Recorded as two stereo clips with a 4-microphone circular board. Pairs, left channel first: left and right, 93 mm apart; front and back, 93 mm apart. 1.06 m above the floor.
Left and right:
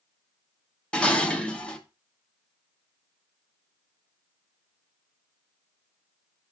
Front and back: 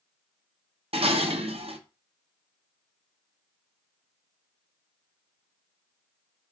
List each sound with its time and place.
0.9 s dishes clattering: 170° left, 1.0 m